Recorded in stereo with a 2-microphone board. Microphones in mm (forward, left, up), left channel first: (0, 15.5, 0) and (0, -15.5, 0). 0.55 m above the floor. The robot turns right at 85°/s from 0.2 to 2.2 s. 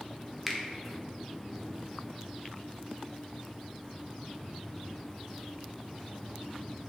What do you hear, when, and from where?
0.5 s a finger snap: centre (ahead or behind), 0.6 m; by 0.6 s 5° left (ahead or behind), 0.6 m